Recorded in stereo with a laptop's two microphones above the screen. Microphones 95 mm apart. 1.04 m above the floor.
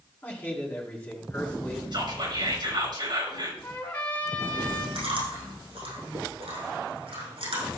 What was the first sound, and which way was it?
A man speaking, 20° left (ahead or behind).